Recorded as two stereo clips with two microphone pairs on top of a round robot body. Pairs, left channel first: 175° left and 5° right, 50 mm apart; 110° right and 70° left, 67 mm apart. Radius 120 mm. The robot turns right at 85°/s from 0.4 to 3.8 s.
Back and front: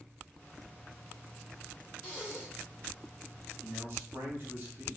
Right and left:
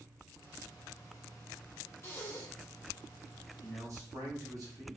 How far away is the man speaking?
About 1.4 m.